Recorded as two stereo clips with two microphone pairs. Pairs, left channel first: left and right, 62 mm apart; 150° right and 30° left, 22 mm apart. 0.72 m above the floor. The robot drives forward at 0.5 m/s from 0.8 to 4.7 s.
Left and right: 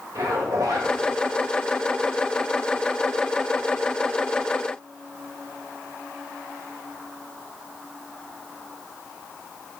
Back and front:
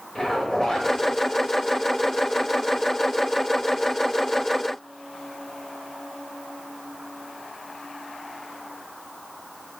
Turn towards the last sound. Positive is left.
turn(degrees=-135)